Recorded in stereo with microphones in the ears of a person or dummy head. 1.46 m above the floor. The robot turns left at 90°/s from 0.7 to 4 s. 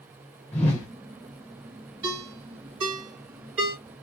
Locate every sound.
0.5 s a whoosh: 10° left (ahead or behind), 0.5 m; by 0.9 s 15° left (ahead or behind), 0.5 m
2.0 s a ringtone: 30° right (ahead or behind), 1.7 m; by 3.8 s 10° left (ahead or behind), 1.7 m